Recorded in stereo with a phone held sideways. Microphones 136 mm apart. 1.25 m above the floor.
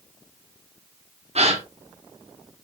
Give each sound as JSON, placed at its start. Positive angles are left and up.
{"t": 1.4, "sound": "a gasp", "side_deg": -50, "distance_m": 1.6}